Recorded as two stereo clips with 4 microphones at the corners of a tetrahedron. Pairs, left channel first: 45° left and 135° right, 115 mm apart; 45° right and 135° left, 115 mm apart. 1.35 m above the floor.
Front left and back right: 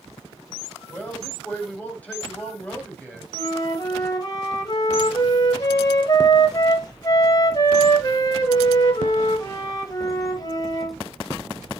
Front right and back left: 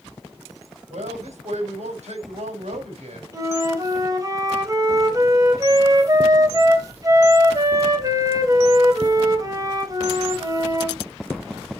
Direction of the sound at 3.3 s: 85° left.